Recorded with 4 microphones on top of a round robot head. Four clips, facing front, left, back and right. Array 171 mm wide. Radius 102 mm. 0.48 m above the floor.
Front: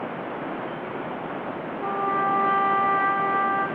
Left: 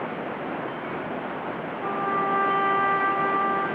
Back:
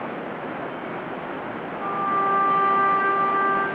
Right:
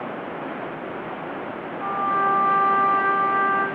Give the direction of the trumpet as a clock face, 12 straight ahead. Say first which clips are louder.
Right 4 dB, back 1 dB; 5 o'clock.